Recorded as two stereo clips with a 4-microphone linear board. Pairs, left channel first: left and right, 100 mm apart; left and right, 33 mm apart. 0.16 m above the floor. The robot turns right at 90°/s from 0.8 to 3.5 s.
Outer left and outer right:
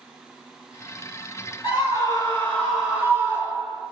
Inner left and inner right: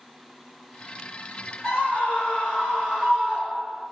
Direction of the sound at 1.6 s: 75° left.